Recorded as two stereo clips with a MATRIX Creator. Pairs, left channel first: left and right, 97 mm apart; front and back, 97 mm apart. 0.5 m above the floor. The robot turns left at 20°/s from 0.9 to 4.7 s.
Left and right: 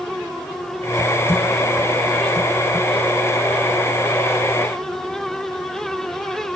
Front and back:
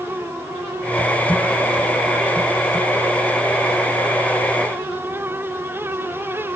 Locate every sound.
Only background noise.